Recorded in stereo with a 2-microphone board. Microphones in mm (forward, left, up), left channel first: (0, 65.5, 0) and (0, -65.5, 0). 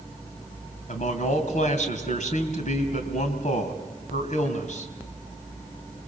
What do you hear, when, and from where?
0.9 s a man speaking: 70° left (ahead or behind), 3 m